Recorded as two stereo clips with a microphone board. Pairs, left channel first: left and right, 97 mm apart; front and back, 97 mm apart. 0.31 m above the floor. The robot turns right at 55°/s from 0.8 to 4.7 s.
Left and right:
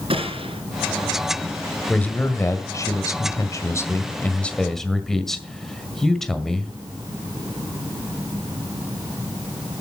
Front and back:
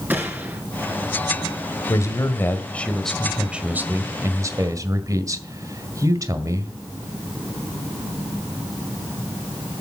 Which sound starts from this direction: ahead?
A man speaking, at 1.9 s.